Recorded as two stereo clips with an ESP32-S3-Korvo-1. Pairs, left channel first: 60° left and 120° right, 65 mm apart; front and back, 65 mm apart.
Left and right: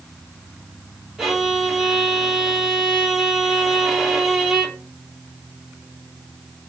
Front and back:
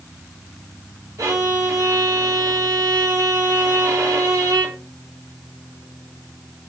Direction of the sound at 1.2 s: 160° left.